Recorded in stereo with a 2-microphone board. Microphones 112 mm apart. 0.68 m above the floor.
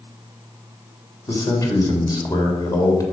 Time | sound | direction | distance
1.3 | a man speaking | 30° left (ahead or behind) | 3 m